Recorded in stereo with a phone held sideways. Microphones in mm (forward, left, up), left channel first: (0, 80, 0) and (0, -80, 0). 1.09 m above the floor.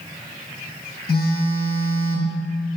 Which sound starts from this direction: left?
A phone buzzing, at 1.1 s.